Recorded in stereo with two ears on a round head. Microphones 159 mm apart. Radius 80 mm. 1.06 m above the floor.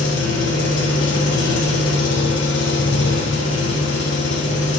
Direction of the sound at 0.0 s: 70° left (ahead or behind).